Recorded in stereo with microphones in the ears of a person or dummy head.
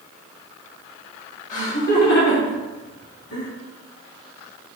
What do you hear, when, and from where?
1.5 s laughter: 40° left (ahead or behind), 2.5 m; by 3.5 s 75° left (ahead or behind), 2 m